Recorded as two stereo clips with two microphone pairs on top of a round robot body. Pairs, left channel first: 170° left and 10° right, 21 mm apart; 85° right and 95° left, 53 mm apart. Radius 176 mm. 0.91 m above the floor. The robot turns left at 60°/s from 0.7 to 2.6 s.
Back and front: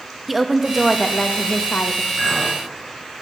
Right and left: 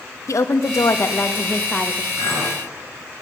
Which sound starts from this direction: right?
A woman speaking, at 0.3 s.